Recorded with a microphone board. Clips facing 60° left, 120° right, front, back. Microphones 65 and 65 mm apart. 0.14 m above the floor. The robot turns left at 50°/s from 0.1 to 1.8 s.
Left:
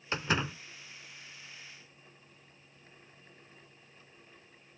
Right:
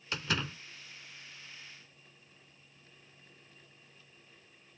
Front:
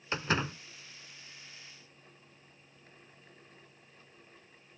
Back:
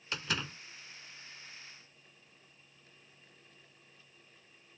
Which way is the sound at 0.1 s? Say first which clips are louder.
Left 3 dB, front 6 dB; 25° left.